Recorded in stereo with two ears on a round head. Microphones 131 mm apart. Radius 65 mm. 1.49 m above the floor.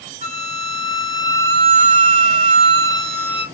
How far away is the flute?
About 1.4 m.